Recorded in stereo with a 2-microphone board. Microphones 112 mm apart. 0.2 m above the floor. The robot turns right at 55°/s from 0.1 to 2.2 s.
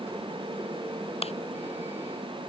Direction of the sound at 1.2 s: 65° left (ahead or behind).